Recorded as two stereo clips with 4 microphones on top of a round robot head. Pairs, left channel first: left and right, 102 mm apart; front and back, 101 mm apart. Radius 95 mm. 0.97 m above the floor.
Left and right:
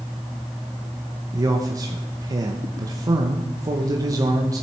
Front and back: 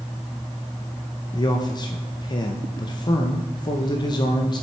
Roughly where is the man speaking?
Ahead right.